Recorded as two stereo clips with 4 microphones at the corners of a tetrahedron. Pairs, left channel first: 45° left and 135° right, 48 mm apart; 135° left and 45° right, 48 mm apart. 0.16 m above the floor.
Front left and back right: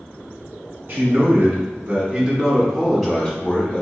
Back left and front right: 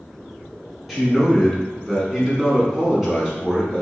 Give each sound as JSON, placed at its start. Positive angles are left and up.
{"t": 0.9, "sound": "a man speaking", "azimuth_deg": -125, "distance_m": 1.6}